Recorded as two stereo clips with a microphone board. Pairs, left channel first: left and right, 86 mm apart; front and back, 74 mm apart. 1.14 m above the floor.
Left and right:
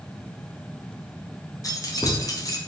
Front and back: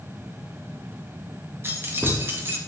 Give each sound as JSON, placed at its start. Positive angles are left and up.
{"t": 1.6, "sound": "keys jangling", "azimuth_deg": 125, "distance_m": 0.6}